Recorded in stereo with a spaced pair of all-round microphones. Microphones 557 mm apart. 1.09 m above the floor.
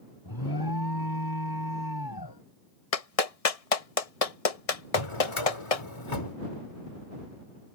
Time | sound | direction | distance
0.2 | an alarm | 40° left (ahead or behind) | ?
2.9 | a clap | 85° left | ?
5.0 | a drawer | 55° left (ahead or behind) | ?